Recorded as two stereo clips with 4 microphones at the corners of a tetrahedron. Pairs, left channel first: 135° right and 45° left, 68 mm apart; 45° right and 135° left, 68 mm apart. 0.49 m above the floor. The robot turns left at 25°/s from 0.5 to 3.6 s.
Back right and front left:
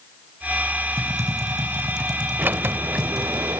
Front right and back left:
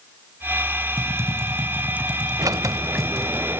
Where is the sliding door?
110° left, 0.6 m; by 3.6 s 80° left, 0.6 m.